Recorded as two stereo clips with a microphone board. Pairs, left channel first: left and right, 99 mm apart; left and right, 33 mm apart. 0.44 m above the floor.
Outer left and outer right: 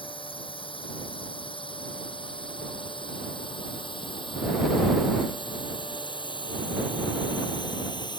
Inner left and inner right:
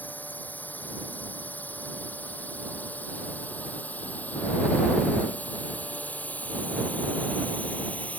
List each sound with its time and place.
0.0 s a drone: 60° left (ahead or behind); by 8.2 s 50° left (ahead or behind)